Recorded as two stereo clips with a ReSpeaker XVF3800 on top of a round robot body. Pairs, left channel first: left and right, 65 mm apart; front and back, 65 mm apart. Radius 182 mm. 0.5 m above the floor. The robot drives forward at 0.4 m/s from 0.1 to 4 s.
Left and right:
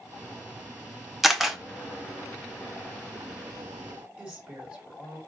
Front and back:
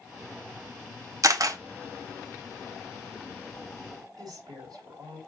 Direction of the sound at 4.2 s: 165° right.